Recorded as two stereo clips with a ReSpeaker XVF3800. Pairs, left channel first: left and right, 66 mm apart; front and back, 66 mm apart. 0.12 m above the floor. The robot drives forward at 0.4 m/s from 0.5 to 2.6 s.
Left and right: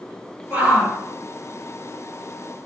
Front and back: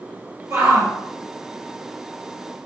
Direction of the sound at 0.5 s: 160° right.